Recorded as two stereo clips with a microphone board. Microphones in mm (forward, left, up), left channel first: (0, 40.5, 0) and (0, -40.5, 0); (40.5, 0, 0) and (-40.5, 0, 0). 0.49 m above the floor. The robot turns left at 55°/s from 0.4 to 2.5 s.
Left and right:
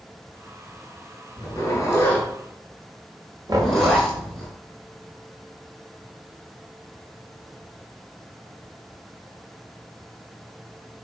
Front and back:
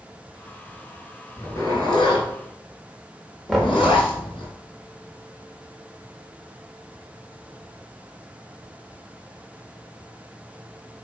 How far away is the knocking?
About 1.5 m.